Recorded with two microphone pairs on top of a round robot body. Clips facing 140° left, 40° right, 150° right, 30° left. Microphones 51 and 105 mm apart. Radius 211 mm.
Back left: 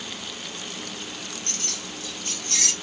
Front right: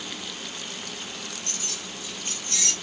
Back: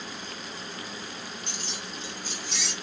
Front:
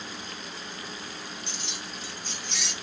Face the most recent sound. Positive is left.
turn(degrees=115)